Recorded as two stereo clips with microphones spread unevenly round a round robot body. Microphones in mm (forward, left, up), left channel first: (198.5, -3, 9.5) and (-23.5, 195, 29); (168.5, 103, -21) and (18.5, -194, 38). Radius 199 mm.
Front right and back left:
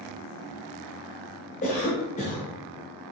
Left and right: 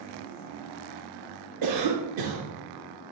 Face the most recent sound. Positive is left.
turn(degrees=-105)